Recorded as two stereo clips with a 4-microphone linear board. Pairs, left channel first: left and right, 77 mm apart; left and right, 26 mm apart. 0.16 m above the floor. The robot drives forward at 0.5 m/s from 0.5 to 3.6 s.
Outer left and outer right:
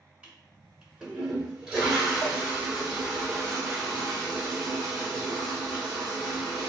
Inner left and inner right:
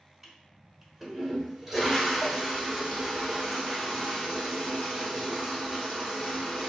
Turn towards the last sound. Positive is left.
turn(degrees=-5)  # may be behind; listen again after turning